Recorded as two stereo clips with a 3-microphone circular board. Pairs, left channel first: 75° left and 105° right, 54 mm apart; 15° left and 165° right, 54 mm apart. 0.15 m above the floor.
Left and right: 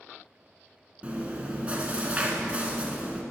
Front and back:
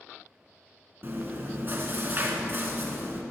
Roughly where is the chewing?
Behind right.